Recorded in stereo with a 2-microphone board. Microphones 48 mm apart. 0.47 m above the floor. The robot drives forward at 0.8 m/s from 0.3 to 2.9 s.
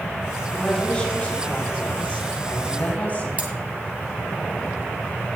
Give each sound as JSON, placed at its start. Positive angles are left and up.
{"t": 0.5, "sound": "a woman speaking", "side_deg": 25, "distance_m": 5.0}
{"t": 3.4, "sound": "cutlery clinking", "side_deg": -30, "distance_m": 1.7}